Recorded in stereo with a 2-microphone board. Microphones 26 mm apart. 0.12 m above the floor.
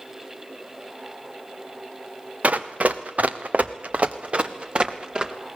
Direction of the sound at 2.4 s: 75° right (ahead or behind).